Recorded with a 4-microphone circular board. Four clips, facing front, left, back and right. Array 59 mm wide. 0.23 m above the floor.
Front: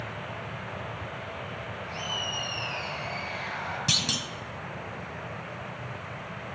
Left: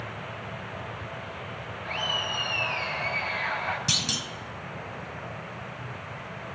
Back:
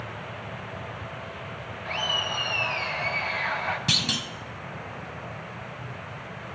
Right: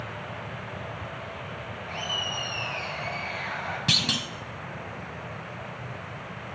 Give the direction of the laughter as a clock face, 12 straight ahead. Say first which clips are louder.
Left 2 dB, back 7 dB; 7 o'clock.